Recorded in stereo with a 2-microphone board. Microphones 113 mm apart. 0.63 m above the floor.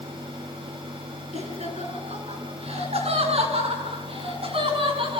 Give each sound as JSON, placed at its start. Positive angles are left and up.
{"t": 1.3, "sound": "laughter", "side_deg": -65, "distance_m": 10.0}